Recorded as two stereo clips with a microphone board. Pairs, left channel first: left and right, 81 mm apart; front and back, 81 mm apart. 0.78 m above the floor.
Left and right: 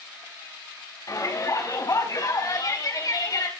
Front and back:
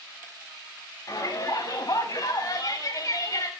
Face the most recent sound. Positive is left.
turn(degrees=45)